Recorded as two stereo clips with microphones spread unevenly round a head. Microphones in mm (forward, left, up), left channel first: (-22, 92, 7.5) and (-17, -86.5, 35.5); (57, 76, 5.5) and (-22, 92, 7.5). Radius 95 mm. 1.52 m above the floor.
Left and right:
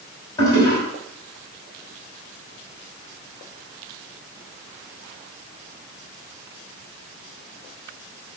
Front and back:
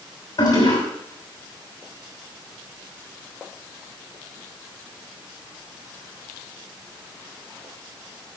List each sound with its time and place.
0.4 s a toilet flushing: 15° left, 6 m